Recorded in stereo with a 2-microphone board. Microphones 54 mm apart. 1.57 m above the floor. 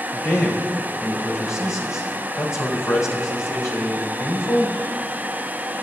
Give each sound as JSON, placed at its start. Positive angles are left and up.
{"t": 0.1, "sound": "a man speaking", "side_deg": 85, "distance_m": 3.5}